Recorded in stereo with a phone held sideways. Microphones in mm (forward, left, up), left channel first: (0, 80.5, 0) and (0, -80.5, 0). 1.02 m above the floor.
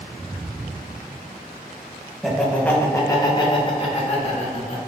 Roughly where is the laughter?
Centre.